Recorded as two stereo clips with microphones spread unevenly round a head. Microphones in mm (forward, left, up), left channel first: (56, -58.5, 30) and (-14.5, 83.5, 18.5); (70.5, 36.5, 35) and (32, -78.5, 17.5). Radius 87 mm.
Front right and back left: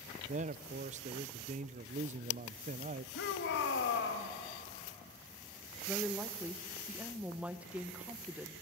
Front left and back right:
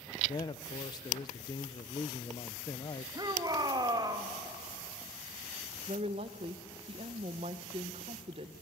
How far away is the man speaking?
About 0.5 m.